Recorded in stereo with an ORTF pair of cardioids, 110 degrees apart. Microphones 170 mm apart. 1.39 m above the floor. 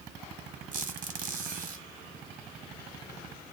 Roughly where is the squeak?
Ahead right.